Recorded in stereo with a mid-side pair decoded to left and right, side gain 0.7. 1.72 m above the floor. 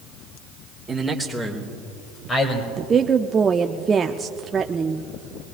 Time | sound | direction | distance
0.9 | a man speaking | 15° right | 1.9 m
2.8 | a woman speaking | 25° right | 0.5 m